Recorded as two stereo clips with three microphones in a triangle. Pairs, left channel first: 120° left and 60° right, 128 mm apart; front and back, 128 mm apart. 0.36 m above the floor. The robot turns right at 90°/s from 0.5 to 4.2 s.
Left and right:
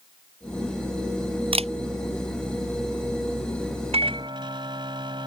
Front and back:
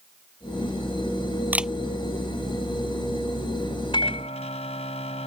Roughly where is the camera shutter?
Right.